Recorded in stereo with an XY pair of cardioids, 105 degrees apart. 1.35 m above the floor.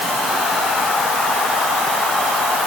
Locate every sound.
Only background noise.